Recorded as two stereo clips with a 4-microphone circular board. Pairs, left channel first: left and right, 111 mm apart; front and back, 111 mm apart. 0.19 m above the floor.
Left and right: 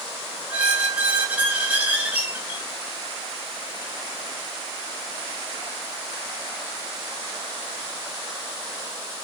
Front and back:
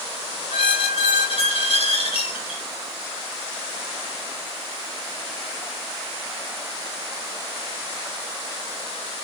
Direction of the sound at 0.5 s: 15° right.